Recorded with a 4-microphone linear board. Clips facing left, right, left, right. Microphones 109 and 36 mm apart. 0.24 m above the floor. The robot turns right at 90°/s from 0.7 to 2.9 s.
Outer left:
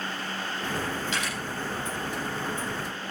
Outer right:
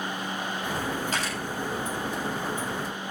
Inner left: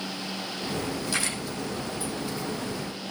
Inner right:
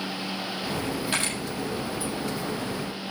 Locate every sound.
1.1 s a camera shutter: 45° right (ahead or behind), 7.5 m; by 1.4 s 25° right (ahead or behind), 7.5 m